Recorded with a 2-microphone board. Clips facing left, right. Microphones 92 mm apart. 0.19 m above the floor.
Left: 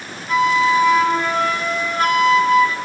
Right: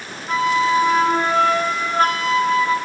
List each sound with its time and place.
0.3 s a flute: 35° right (ahead or behind), 0.6 m